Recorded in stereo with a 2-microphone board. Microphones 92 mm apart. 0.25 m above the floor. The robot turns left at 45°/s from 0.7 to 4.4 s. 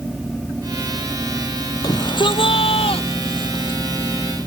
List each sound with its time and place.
1.8 s a shout: 135° left; by 3.8 s 45° left